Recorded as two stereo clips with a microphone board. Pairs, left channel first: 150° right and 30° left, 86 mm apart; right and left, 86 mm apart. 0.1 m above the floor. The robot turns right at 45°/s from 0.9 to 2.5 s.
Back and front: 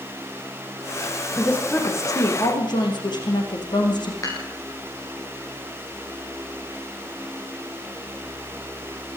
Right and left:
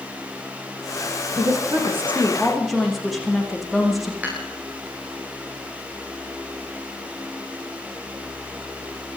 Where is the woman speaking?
130° left, 6.5 m; by 4.1 s straight behind, 6.5 m.